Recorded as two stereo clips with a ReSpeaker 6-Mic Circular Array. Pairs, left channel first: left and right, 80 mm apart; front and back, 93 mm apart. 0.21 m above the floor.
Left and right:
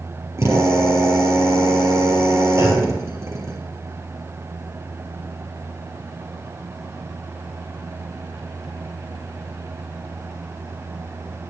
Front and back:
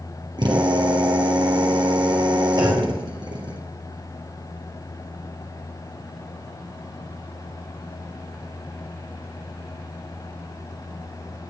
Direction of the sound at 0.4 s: 145° right.